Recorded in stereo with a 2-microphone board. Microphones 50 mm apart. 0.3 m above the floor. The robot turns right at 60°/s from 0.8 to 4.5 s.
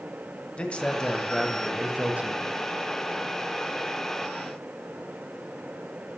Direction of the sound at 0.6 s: 150° left.